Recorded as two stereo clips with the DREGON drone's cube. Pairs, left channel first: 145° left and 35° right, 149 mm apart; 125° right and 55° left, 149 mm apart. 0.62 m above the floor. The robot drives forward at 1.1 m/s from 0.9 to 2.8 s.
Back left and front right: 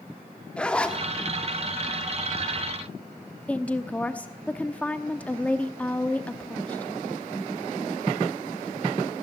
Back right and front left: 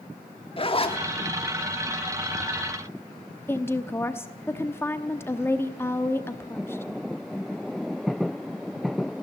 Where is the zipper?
135° right, 1.5 m; by 1.0 s 140° right, 1.6 m.